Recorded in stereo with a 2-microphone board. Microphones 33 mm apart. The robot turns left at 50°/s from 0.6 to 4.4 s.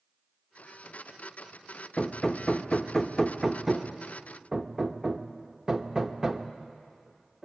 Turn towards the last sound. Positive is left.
turn(degrees=-20)  # may be behind; listen again after turning